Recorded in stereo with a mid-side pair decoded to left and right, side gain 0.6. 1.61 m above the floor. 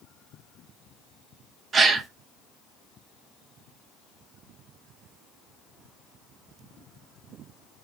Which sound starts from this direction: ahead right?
A gasp, at 1.7 s.